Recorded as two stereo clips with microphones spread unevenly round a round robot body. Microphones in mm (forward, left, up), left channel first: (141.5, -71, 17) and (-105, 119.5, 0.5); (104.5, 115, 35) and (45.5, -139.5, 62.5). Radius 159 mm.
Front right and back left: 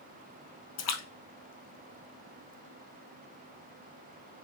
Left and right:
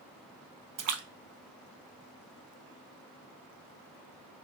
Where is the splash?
70° right, 0.6 m.